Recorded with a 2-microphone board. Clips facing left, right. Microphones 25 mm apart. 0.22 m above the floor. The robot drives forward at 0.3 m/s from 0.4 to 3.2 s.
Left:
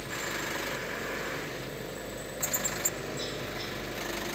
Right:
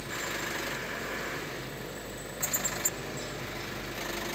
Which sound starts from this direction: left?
A helicopter, at 0.0 s.